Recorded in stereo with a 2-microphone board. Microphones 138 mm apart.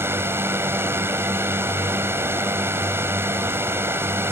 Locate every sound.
0.0 s a drone: 15° right (ahead or behind)